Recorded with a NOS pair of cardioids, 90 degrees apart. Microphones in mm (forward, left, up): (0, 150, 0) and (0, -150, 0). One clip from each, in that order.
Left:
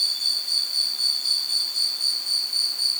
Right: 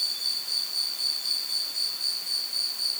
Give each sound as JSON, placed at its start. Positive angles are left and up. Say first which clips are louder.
{"t": 0.0, "sound": "an insect", "louder": "left 5 dB", "azimuth_deg": 40}